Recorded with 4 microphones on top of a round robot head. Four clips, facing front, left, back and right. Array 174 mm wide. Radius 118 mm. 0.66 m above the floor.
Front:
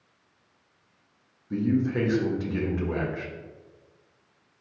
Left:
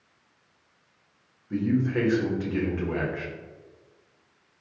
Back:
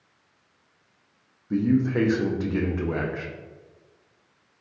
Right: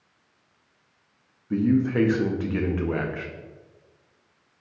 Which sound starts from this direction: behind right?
A man speaking, at 1.5 s.